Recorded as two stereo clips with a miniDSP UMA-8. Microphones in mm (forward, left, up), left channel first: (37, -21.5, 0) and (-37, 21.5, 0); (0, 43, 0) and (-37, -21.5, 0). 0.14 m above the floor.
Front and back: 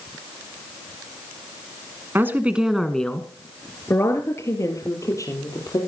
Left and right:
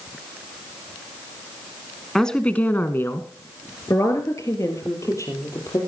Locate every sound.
2.1 s a woman speaking: 140° left, 1.3 m; by 5.8 s 15° left, 4 m